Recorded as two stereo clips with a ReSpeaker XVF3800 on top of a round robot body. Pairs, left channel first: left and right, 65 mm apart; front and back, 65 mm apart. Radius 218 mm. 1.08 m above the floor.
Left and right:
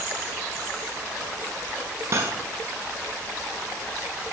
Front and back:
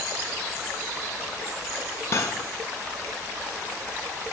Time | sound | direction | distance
2.1 | cutlery clinking | 45° right | 0.6 m